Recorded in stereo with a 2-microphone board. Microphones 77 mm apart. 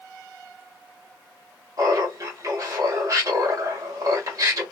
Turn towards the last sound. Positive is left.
turn(degrees=-50)  # may be behind; listen again after turning